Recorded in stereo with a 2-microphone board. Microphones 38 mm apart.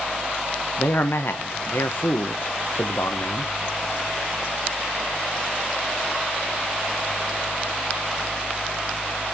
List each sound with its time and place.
0.8 s a man speaking: 70° left (ahead or behind), 1.0 m